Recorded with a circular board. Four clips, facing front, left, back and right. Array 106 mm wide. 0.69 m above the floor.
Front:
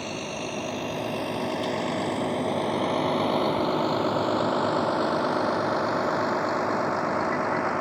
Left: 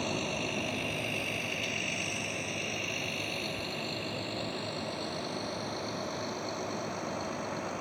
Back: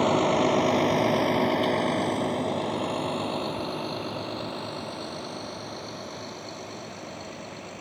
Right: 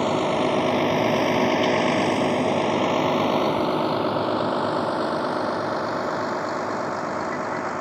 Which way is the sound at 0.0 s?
135° right.